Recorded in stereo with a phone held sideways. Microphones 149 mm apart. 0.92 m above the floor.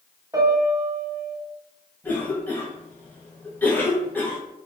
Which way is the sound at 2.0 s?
10° left (ahead or behind).